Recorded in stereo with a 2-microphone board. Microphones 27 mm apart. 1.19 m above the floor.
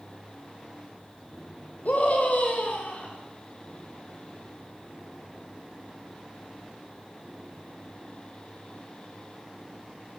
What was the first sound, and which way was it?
A scream, 65° left (ahead or behind).